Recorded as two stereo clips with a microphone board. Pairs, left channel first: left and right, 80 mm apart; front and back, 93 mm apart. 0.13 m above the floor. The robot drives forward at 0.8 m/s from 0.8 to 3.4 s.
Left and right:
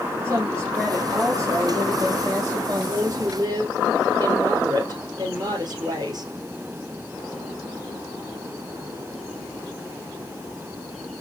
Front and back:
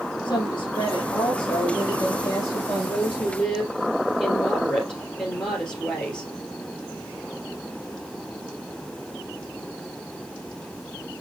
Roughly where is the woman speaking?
Ahead right.